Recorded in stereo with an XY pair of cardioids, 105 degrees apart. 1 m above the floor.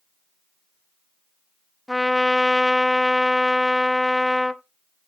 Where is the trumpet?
5° left, 0.7 m.